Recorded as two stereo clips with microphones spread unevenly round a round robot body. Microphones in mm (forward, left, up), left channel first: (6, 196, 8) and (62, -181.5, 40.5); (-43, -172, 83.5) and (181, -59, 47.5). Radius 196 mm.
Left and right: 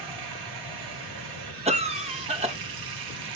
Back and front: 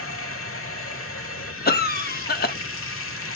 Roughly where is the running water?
Behind right.